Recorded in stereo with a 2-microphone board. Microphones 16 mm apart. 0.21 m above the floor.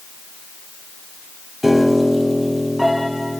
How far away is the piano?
About 6.5 m.